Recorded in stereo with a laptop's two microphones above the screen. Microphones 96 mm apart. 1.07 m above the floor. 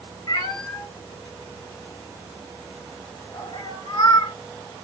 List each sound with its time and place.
0.3 s a cat meowing: 45° left (ahead or behind), 1.1 m